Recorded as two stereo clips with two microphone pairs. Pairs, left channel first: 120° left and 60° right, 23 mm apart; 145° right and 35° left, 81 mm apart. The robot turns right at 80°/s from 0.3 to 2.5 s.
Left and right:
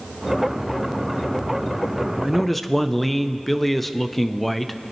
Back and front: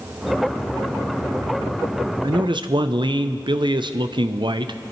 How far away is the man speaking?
About 0.6 m.